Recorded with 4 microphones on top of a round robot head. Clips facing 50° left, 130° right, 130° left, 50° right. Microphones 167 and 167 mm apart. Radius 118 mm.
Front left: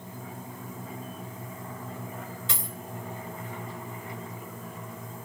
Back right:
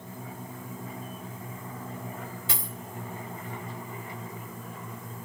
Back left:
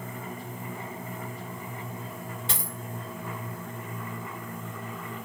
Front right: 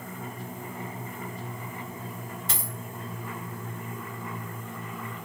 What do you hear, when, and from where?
2.5 s a dropped coin: 160° left, 1.8 m